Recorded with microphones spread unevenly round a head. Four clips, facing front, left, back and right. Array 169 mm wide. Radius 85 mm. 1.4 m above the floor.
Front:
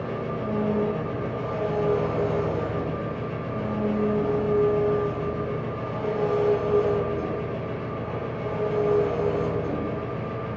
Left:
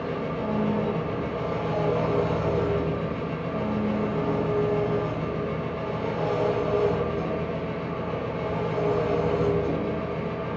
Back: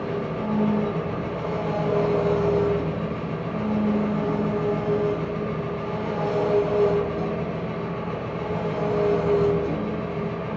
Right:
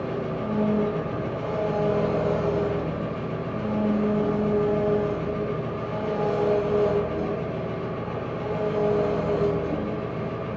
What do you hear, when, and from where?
0.0 s an engine running: 150° left, 2.0 m